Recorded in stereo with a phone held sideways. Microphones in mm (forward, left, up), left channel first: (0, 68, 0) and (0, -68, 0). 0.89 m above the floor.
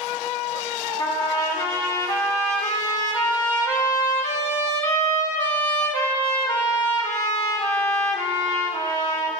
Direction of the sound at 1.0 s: 30° left (ahead or behind).